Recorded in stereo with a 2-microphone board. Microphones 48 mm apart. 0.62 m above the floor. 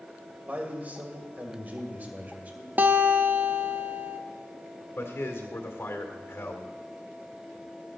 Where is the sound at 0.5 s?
35° right (ahead or behind), 2.5 m.